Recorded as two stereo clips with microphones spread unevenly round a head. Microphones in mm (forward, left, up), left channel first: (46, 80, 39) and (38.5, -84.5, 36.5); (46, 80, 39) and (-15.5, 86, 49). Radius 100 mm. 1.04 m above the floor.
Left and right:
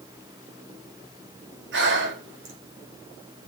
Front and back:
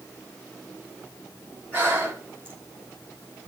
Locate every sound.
1.7 s breathing: 85° right, 4 m